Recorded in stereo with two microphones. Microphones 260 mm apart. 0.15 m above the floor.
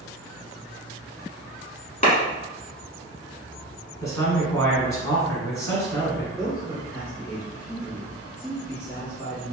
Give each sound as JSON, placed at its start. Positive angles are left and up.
{"t": 2.0, "sound": "a clap", "side_deg": 30, "distance_m": 1.1}
{"t": 4.0, "sound": "a man speaking", "side_deg": 10, "distance_m": 1.1}
{"t": 6.4, "sound": "a man speaking", "side_deg": 10, "distance_m": 1.8}